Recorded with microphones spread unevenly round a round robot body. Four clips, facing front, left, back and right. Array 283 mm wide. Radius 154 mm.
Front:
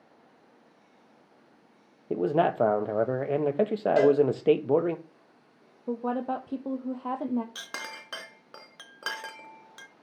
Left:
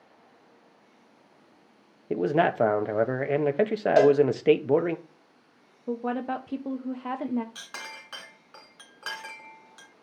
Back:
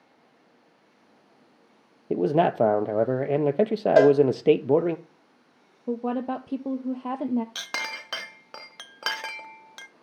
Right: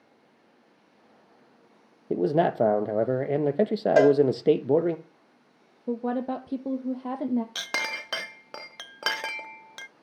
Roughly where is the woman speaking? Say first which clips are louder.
Right 1 dB, back 2 dB; behind right.